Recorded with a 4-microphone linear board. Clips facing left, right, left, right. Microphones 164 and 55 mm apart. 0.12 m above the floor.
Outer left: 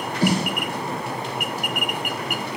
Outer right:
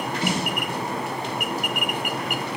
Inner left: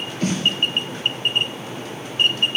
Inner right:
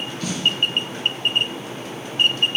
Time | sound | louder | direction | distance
0.2 | a snare drum | outer left 6 dB, inner left 2 dB | 35° left (ahead or behind) | 1.6 m